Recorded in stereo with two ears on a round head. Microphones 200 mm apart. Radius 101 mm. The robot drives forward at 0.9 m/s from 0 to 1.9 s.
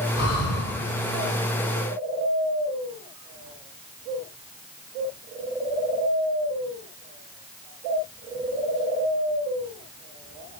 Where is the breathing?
85° left, 4.5 m; by 0.7 s 80° left, 4.5 m.